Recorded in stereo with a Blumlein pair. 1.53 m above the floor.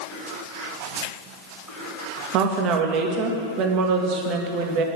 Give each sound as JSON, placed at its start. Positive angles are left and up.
{"t": 2.3, "sound": "a woman speaking", "azimuth_deg": -40, "distance_m": 1.7}